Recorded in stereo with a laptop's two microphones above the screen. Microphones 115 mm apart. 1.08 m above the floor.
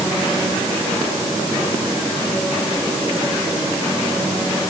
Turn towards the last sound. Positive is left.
No sound to turn to.